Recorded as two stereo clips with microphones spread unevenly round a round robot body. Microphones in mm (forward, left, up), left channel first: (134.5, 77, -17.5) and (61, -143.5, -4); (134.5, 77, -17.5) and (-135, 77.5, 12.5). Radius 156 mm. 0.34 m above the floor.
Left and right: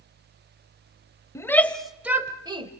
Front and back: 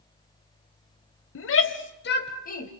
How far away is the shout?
About 1.6 m.